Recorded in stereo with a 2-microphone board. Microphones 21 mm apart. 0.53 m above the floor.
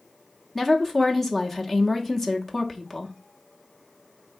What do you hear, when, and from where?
0.6 s a woman speaking: 10° left (ahead or behind), 0.7 m